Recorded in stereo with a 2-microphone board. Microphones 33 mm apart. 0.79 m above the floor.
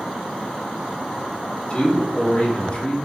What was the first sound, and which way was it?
A man speaking, 35° left (ahead or behind).